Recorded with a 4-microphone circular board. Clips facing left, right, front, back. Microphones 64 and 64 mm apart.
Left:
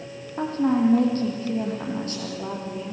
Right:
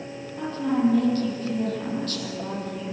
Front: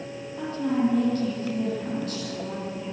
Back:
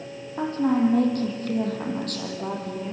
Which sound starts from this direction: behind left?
A woman speaking, at 0.4 s.